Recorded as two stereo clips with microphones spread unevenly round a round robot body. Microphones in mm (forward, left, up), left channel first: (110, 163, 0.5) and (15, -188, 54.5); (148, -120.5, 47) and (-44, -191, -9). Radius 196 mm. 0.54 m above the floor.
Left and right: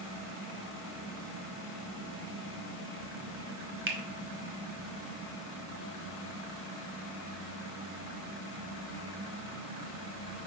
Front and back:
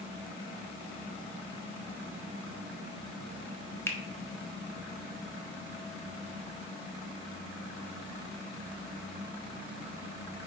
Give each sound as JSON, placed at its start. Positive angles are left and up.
{"t": 3.9, "sound": "a finger snap", "azimuth_deg": -75, "distance_m": 1.2}